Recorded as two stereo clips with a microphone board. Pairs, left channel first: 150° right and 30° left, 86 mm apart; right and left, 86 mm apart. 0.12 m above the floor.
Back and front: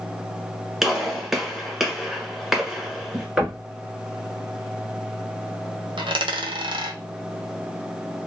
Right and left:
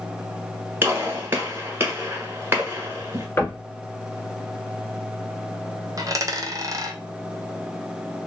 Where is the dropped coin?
45° left, 0.6 m.